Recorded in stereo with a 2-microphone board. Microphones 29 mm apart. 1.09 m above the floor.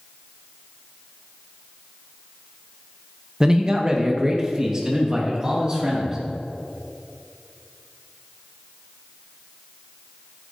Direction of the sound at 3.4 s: 25° right (ahead or behind).